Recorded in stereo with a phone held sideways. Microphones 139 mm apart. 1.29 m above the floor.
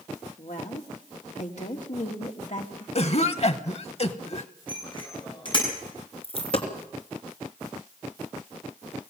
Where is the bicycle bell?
35° left (ahead or behind), 8 m.